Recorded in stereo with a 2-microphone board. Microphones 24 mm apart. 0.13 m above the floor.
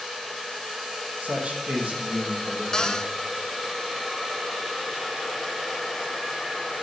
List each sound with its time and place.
1.2 s a man speaking: 50° right (ahead or behind), 4.5 m
2.7 s a cupboard door: 25° left (ahead or behind), 0.8 m